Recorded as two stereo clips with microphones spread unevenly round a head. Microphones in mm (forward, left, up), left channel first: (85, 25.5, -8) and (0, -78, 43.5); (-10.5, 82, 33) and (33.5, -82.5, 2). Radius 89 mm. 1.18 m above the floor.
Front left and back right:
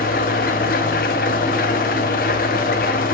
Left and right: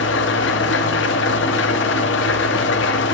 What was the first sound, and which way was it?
An engine running, 100° left.